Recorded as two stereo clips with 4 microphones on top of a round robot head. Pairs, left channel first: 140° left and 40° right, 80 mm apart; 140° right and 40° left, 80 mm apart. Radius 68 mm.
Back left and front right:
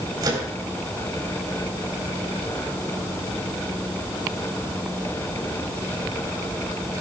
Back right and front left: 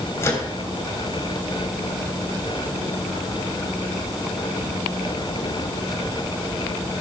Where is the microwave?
85° right, 3 m.